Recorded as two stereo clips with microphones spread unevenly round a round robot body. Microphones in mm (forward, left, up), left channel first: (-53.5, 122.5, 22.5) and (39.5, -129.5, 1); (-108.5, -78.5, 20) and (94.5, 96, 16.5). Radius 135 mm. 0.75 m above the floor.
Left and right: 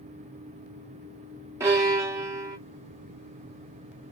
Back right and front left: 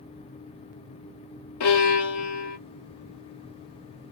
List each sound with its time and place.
1.6 s a violin: 145° right, 1.5 m